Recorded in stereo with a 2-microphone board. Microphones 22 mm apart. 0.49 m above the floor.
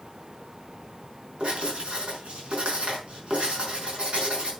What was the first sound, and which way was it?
Writing, 65° right (ahead or behind).